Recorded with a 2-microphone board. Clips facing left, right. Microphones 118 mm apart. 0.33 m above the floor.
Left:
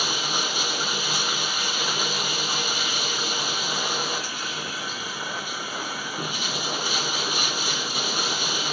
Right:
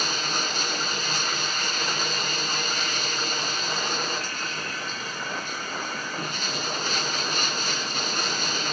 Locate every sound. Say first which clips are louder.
0.0 s running water: left 1 dB; 10° left (ahead or behind), 0.8 m